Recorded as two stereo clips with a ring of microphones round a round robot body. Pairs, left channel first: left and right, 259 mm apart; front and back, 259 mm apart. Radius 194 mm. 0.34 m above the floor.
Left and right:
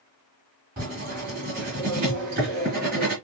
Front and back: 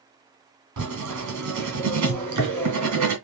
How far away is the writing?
About 2.5 m.